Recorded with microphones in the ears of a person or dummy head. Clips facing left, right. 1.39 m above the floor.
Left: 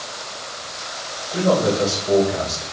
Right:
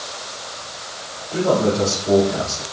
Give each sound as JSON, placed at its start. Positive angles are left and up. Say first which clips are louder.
{"t": 1.3, "sound": "a man speaking", "louder": "even", "side_deg": -65, "distance_m": 4.5}